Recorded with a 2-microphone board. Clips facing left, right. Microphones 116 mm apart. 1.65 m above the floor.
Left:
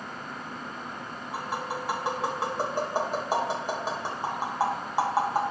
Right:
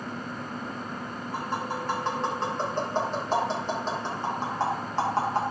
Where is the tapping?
10° left (ahead or behind), 2 m.